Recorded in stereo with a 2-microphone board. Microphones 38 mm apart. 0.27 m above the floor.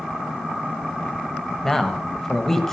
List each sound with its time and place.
1.6 s a man speaking: 10° left (ahead or behind), 1.0 m